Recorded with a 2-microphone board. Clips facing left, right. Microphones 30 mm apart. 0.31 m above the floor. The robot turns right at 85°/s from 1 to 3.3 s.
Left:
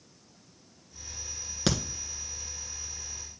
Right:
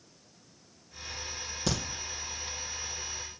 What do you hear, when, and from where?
1.7 s a crack: 60° left (ahead or behind), 1.3 m; by 1.8 s 50° left (ahead or behind), 1.3 m